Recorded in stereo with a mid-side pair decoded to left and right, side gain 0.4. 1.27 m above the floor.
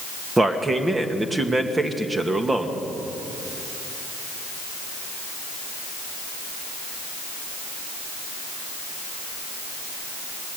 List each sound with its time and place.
0.4 s a man speaking: 25° right, 2 m